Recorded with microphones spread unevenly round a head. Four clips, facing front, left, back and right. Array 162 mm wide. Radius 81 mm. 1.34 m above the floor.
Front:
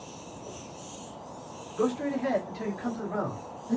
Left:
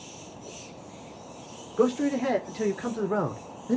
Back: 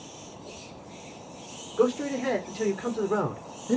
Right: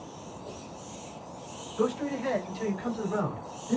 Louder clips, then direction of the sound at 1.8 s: Left 5 dB, back 3 dB; 105° left.